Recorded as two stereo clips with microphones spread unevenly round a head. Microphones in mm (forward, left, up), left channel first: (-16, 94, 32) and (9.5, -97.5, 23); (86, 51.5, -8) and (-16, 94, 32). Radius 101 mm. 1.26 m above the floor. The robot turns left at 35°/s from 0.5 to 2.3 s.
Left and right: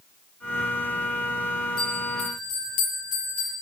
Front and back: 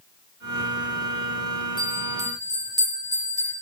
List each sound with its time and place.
1.8 s a bell: 130° left, 8 m; by 3.5 s 110° left, 8 m